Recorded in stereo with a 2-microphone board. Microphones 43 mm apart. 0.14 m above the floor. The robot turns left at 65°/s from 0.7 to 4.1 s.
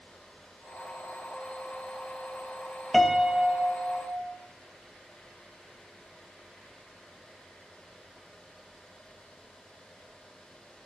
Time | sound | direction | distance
2.9 | a piano | straight ahead | 0.8 m